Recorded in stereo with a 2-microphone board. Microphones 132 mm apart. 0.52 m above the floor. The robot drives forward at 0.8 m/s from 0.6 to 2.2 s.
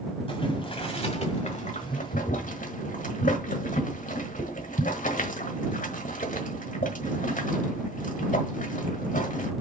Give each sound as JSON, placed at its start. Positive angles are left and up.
{"t": 0.3, "sound": "boiling", "side_deg": 40, "distance_m": 1.9}